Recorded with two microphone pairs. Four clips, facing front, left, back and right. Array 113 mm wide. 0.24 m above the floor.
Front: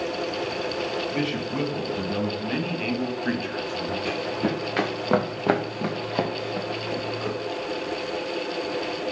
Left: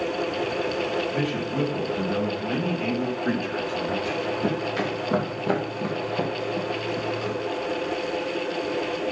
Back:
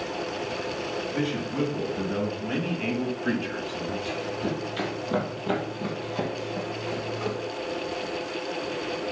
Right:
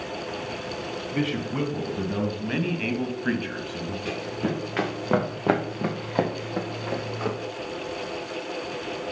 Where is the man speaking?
55° right, 2.5 m; by 4.0 s 95° right, 1.7 m.